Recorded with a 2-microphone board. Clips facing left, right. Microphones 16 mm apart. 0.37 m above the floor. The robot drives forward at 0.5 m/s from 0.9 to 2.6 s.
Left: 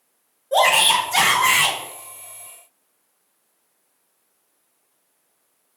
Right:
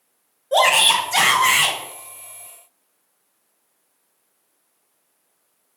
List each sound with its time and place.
0.5 s a shout: 30° right (ahead or behind), 1.1 m; by 1.8 s 20° right (ahead or behind), 1.4 m